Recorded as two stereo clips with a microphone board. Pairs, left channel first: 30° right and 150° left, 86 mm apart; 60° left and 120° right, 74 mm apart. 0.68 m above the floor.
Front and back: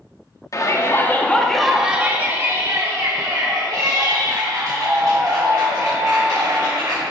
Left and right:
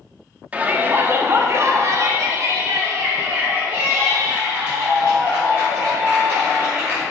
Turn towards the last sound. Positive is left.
turn(degrees=175)